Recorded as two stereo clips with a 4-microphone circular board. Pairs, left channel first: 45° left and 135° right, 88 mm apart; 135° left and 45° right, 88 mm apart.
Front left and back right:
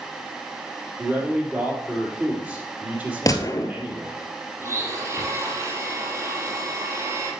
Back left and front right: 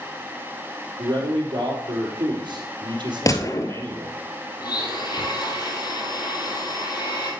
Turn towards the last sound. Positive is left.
turn(degrees=170)